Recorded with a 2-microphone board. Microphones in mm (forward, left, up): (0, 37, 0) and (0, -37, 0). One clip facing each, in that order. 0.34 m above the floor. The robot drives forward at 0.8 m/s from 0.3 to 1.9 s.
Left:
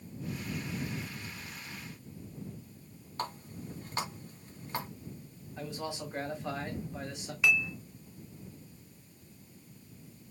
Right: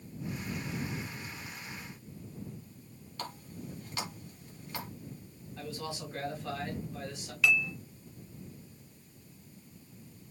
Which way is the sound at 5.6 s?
20° left (ahead or behind).